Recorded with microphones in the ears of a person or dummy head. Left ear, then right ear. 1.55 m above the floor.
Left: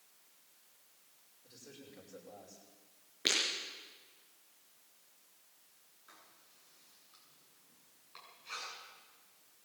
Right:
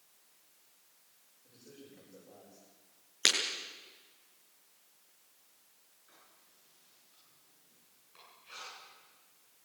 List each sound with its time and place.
1.4 s a man speaking: 70° left (ahead or behind), 9 m
3.2 s breaking glass: 70° right (ahead or behind), 5.5 m
6.1 s writing: 30° left (ahead or behind), 9 m